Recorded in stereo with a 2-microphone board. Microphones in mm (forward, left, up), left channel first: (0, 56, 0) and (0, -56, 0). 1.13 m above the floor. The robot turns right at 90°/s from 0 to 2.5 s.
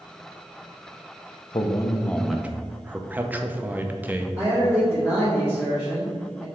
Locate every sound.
1.5 s a man speaking: 115° left, 0.6 m; by 4.3 s 160° right, 0.6 m
4.4 s a man speaking: 10° right (ahead or behind), 2.5 m